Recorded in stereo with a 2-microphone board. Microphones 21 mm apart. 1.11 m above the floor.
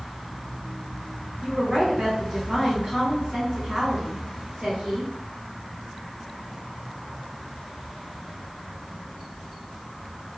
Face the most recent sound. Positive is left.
turn(degrees=-55)  # may be behind; listen again after turning